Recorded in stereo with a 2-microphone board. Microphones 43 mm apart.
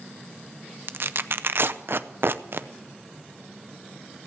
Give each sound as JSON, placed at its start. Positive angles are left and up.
{"t": 0.9, "sound": "tearing paper", "side_deg": -55, "distance_m": 0.5}